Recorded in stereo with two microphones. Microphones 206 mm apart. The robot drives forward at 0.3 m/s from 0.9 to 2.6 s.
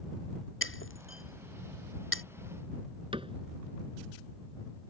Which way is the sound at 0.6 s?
75° left (ahead or behind).